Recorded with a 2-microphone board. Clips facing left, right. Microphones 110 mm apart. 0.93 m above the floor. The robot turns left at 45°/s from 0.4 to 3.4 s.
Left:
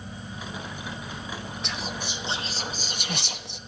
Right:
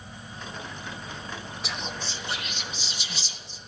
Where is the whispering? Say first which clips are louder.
Left 1 dB; 5° right (ahead or behind), 0.9 m; by 3.6 s 70° left (ahead or behind), 0.9 m.